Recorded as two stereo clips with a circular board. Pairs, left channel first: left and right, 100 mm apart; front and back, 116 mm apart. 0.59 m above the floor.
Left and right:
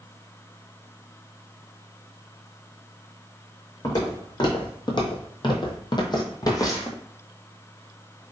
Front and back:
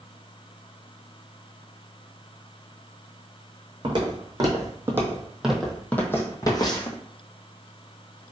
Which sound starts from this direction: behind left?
Footsteps, at 3.8 s.